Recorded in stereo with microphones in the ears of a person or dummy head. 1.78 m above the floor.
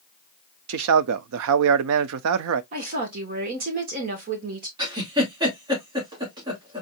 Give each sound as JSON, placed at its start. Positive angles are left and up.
{"t": 0.7, "sound": "a man speaking", "side_deg": -65, "distance_m": 0.5}
{"t": 2.7, "sound": "a woman speaking", "side_deg": -40, "distance_m": 1.9}
{"t": 4.8, "sound": "a giggle", "side_deg": -20, "distance_m": 2.0}